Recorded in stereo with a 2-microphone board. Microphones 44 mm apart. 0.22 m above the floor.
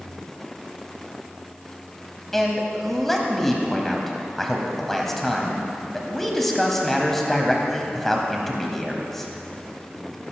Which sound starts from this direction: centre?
A man speaking, at 2.3 s.